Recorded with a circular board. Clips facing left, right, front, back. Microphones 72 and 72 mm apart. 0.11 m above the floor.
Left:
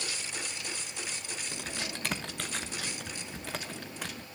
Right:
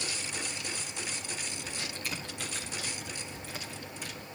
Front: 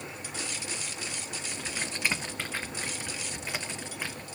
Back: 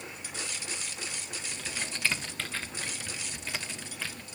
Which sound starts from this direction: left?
Typing on a keyboard, at 1.5 s.